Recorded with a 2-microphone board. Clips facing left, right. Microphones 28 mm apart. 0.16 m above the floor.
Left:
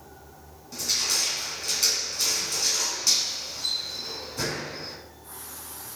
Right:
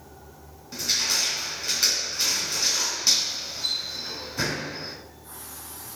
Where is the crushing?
20° right (ahead or behind), 1.1 m.